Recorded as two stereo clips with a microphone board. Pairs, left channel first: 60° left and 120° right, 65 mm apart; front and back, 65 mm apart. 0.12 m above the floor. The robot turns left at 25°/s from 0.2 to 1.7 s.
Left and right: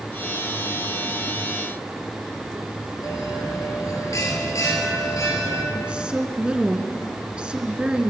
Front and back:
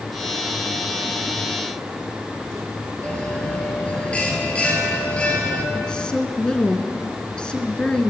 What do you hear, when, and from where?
3.0 s a bell: 70° left, 3 m
5.7 s a woman speaking: 60° right, 1.1 m